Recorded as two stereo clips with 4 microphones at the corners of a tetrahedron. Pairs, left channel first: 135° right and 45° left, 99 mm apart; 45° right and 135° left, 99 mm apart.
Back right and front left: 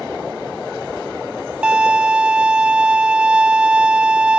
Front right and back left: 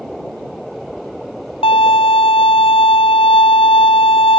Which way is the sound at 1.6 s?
35° right.